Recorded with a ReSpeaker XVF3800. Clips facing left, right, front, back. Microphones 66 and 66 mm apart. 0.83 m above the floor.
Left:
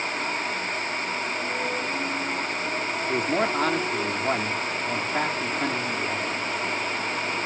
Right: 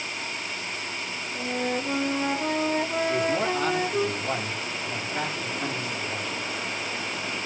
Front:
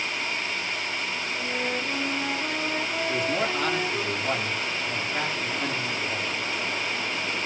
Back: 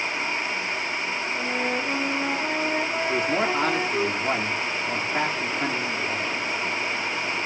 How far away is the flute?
About 2.5 m.